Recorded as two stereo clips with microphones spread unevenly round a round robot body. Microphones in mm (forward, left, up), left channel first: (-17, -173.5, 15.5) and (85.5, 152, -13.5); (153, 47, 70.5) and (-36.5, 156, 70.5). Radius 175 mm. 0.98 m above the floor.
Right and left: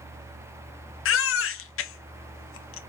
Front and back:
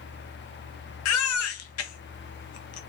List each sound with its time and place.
1.1 s a baby crying: 50° right, 0.7 m